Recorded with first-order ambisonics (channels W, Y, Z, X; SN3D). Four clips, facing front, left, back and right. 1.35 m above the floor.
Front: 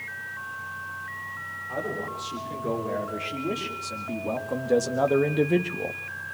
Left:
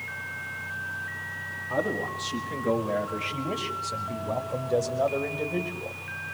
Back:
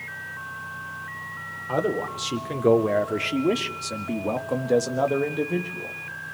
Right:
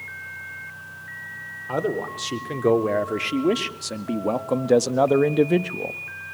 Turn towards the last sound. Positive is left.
turn(degrees=-55)